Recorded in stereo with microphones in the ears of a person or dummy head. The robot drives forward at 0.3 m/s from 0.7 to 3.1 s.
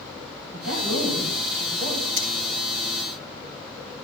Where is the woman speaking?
80° right, 4 m.